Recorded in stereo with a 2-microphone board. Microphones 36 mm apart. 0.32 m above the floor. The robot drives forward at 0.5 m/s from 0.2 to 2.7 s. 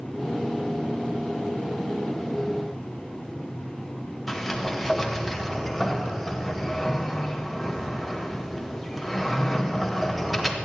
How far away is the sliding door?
About 1.3 m.